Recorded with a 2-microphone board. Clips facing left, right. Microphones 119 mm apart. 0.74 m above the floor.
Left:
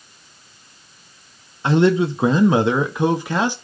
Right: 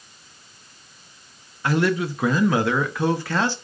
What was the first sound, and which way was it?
A man speaking, 25° left (ahead or behind).